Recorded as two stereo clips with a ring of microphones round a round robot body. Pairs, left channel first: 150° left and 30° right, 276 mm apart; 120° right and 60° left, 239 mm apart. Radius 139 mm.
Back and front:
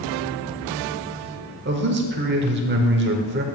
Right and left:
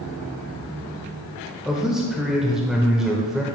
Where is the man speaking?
25° right, 0.9 m.